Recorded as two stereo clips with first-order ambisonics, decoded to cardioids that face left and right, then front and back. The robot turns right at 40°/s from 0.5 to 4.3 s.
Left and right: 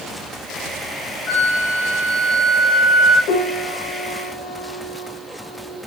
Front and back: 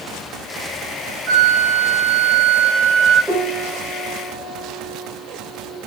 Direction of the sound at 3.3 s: 100° left.